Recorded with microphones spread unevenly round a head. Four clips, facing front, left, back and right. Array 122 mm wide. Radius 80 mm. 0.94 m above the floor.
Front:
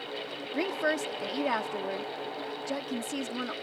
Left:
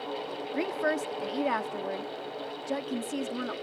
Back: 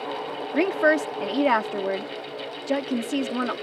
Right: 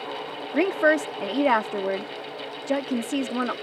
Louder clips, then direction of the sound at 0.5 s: Right 9 dB, back 9 dB; 115° right.